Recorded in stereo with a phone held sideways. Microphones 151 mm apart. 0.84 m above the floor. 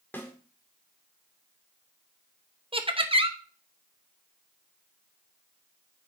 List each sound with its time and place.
0.1 s a snare drum: 15° left (ahead or behind), 1.9 m
2.7 s laughter: 35° right (ahead or behind), 1.0 m